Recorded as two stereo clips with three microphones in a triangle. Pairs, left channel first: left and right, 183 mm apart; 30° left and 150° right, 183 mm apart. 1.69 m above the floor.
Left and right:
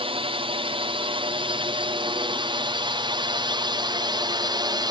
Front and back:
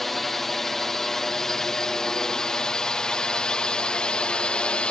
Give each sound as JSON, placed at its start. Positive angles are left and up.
{"t": 0.0, "sound": "a drone", "azimuth_deg": -60}